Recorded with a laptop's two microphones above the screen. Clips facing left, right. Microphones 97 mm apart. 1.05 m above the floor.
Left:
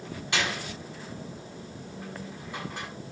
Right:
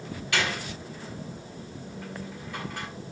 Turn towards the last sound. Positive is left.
turn(degrees=25)  # may be behind; listen again after turning